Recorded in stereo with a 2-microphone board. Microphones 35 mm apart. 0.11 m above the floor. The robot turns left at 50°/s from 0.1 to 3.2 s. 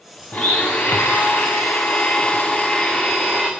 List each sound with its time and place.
0.3 s a blender: 145° left, 2.5 m; by 3.5 s straight ahead, 2.5 m